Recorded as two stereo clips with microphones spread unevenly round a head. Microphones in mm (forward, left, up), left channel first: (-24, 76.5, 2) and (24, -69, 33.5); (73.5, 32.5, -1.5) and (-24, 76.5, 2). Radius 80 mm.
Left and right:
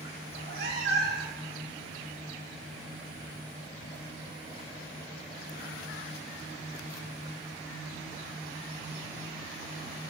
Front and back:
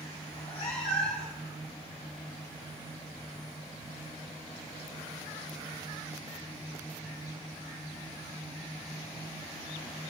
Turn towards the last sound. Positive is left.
turn(degrees=-70)